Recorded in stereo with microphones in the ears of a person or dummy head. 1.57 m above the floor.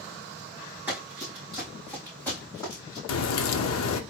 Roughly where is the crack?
Left.